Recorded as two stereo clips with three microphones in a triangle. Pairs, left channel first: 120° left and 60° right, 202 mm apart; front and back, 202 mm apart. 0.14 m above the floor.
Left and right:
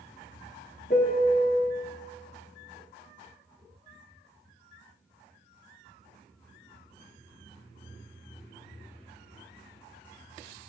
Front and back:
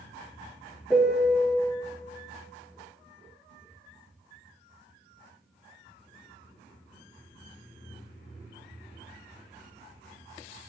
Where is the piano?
95° left, 1.5 m.